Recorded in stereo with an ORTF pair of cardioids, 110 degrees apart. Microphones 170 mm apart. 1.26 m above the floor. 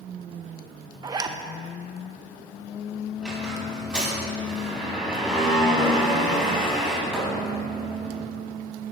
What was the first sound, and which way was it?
A zipper, 25° right.